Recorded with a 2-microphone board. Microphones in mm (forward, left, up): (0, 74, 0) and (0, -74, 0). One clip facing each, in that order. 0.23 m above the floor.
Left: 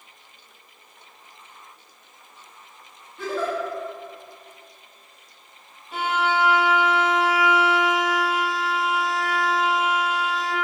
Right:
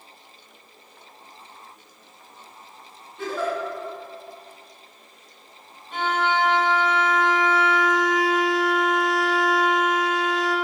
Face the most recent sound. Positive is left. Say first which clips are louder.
# even
turn(degrees=5)  # may be behind; listen again after turning